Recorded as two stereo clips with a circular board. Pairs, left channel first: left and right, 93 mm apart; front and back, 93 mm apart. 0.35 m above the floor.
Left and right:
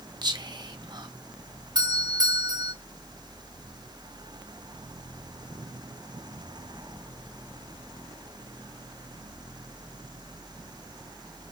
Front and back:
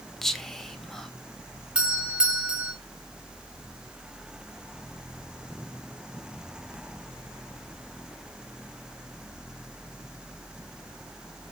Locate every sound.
0.2 s whispering: 85° right, 1.4 m
1.8 s a doorbell: 105° right, 2.5 m